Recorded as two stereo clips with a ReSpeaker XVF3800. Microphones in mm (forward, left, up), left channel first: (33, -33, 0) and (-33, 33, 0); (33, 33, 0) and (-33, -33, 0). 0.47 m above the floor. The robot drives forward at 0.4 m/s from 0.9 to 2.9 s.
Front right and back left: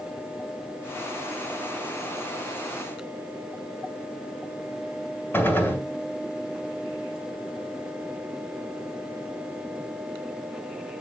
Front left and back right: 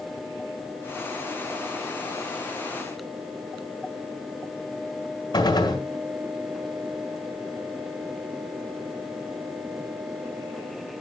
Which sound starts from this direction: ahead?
A gunshot, at 5.3 s.